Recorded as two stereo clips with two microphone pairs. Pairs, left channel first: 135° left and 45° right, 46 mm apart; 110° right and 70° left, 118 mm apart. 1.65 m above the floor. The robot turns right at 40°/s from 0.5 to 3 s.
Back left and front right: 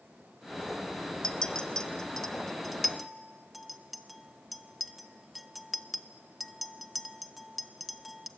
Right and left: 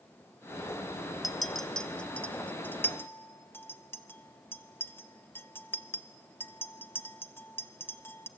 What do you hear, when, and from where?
1.2 s a clink: 150° left, 0.9 m; by 8.3 s 140° right, 0.9 m